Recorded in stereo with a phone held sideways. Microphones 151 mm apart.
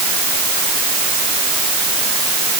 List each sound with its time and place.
Only background noise.